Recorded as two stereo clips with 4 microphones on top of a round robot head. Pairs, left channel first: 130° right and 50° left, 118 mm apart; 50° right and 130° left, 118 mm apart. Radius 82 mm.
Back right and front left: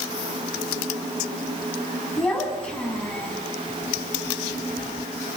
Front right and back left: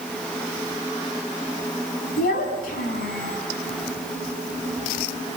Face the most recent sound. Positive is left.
turn(degrees=-50)